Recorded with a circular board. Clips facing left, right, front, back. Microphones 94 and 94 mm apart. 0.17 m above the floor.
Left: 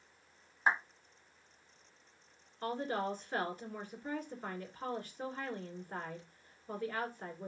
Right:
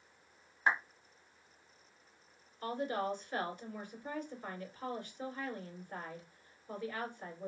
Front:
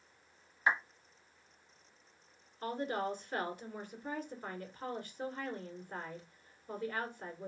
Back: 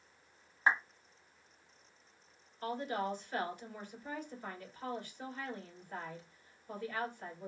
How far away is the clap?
About 1.4 m.